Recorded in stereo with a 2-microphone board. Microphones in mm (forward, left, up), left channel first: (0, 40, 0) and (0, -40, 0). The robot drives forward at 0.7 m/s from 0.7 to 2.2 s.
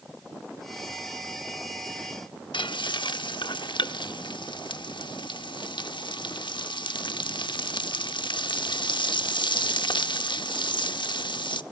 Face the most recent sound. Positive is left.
turn(degrees=75)  # may be behind; listen again after turning